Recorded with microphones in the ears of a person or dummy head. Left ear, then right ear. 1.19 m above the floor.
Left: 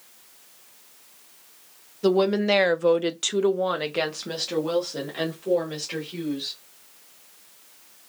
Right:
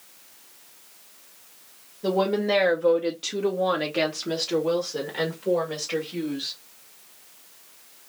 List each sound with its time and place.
2.0 s a woman speaking: 65° left (ahead or behind), 0.8 m; by 6.6 s 20° right (ahead or behind), 2 m